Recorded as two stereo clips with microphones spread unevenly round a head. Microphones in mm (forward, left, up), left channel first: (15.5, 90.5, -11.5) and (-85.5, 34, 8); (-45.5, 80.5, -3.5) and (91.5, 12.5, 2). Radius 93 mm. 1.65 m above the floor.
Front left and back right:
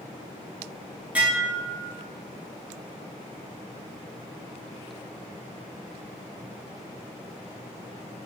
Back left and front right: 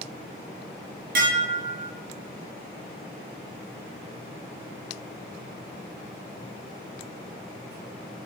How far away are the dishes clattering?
About 2.5 m.